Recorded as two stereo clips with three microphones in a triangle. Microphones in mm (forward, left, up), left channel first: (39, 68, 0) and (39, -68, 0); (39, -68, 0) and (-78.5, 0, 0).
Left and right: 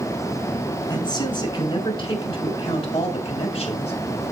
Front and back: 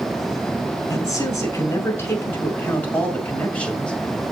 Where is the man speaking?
35° left, 5.5 m; by 3.9 s 50° left, 5.5 m.